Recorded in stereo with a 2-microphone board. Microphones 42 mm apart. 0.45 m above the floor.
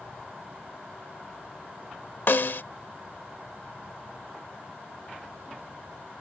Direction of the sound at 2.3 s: 60° left (ahead or behind).